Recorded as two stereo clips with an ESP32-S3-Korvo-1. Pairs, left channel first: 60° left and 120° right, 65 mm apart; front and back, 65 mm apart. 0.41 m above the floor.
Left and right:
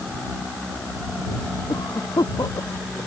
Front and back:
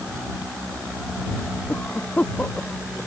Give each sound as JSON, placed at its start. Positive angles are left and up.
{"t": 1.7, "sound": "a cough", "azimuth_deg": 70}